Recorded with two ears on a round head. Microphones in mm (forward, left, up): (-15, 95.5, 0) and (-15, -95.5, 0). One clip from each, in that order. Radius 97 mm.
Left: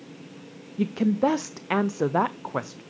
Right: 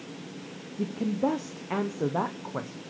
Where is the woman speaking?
85° left, 0.5 m.